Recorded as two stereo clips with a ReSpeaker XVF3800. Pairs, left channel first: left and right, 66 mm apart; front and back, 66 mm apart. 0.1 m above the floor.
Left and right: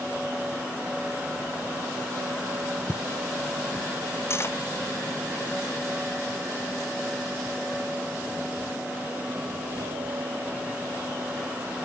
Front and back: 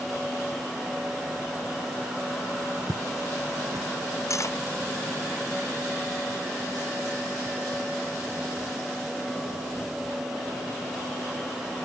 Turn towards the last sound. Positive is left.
turn(degrees=35)